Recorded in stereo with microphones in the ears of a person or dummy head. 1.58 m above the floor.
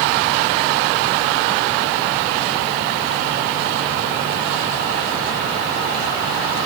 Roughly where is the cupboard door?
I don't hear a cupboard door.